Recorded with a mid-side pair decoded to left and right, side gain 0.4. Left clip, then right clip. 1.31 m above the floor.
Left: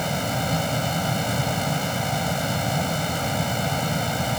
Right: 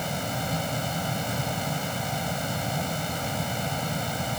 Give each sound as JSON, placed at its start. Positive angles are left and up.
{"t": 0.0, "sound": "a fan", "azimuth_deg": 35}